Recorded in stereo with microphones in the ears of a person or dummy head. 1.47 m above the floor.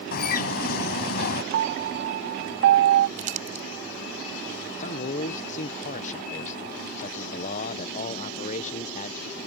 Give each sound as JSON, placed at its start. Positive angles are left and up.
{"t": 0.1, "sound": "a bird", "side_deg": 55}
{"t": 1.5, "sound": "a piano", "side_deg": -50}
{"t": 3.2, "sound": "crumpling", "side_deg": -40}
{"t": 4.8, "sound": "a man speaking", "side_deg": 40}